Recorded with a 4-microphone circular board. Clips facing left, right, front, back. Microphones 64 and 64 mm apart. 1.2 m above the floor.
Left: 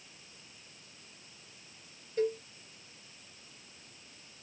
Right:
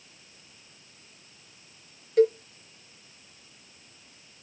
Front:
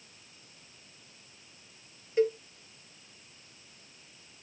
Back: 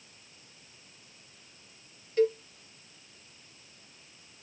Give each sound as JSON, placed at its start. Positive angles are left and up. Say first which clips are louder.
{"t": 2.2, "sound": "a cowbell", "louder": "right 10 dB, back 1 dB", "azimuth_deg": -75, "distance_m": 1.2}